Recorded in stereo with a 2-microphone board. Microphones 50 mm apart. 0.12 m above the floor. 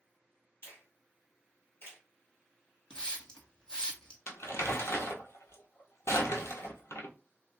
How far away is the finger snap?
About 1.9 m.